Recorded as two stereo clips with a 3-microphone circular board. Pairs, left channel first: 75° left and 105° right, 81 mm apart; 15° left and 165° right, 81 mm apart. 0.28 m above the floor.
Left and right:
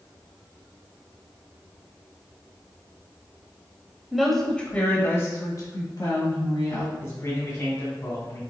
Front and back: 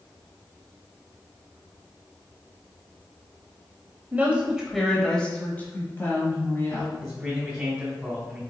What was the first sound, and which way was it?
A woman speaking, straight behind.